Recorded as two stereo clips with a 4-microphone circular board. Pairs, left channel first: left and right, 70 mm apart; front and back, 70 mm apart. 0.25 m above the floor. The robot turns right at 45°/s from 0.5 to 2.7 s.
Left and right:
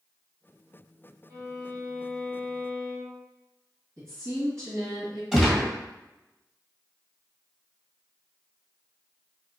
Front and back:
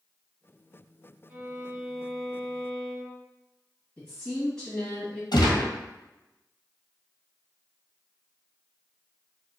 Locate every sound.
1.3 s a violin: 120° right, 1.6 m; by 3.2 s 60° right, 1.6 m
4.0 s a woman speaking: 75° right, 1.5 m
5.3 s a gunshot: 10° right, 1.5 m